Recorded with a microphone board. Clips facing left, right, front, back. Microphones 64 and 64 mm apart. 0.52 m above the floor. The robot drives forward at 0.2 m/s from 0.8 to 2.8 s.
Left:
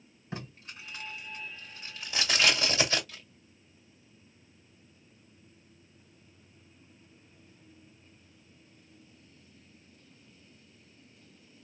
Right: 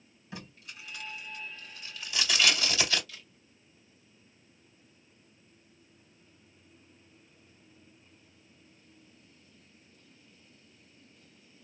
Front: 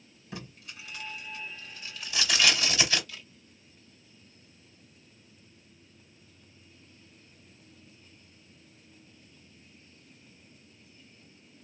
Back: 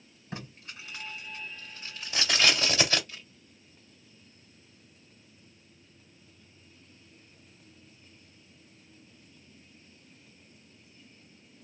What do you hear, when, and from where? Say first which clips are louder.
0.3 s tape being pulled: left 3 dB, back 1 dB; 130° left, 1.9 m; by 3.0 s 140° left, 2 m
3.1 s a camera shutter: even, front 1 dB; 130° left, 1.8 m